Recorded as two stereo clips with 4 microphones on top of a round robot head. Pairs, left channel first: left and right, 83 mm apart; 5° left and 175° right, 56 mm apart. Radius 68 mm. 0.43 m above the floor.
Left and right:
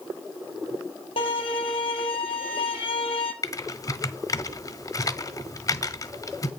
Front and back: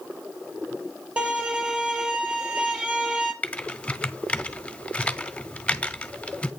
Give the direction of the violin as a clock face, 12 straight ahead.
8 o'clock.